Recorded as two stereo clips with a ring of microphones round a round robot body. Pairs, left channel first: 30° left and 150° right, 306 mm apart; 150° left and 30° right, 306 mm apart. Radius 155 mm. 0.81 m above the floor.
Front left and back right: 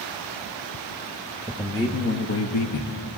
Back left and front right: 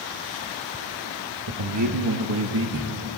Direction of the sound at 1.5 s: 60° right.